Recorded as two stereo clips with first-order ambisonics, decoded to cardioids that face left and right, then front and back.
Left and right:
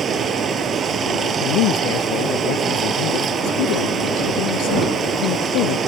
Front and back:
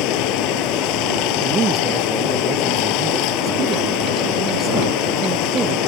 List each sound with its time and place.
0.0 s running water: 25° right
1.4 s a man speaking: 115° left